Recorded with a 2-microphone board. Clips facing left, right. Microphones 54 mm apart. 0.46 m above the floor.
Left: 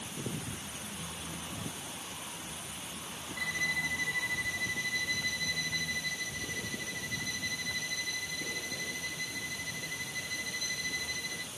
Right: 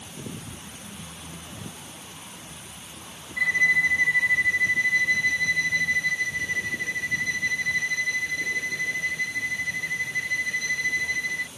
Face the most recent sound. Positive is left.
turn(degrees=-50)  # may be behind; listen again after turning